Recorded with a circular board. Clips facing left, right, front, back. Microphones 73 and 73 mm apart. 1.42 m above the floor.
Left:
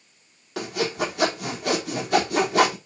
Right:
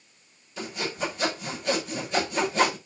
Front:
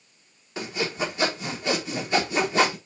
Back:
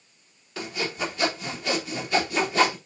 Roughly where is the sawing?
Left.